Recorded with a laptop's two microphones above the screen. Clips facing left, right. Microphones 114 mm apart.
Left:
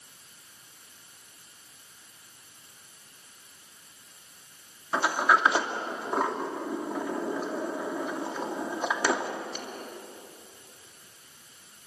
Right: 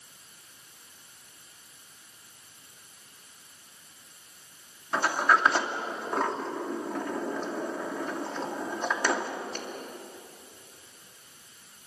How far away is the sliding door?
About 2.5 m.